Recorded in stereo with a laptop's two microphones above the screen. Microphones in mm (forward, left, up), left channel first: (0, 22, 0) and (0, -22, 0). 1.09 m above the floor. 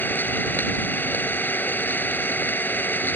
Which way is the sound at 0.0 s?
40° left (ahead or behind).